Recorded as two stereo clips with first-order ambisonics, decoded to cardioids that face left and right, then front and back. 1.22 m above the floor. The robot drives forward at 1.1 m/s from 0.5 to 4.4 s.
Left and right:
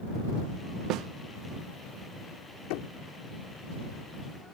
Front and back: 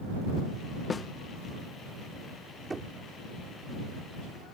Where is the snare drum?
70° right; by 1.1 s 85° right.